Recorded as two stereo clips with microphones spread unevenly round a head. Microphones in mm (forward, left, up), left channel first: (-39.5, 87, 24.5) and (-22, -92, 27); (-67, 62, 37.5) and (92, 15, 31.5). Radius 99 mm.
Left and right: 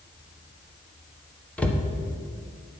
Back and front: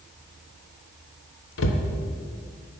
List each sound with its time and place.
1.6 s a cupboard door: straight behind, 1.0 m